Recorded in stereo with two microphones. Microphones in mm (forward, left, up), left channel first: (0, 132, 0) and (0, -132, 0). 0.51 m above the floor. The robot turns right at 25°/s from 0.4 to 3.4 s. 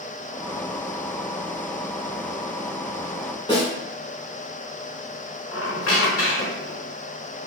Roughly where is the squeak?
Left.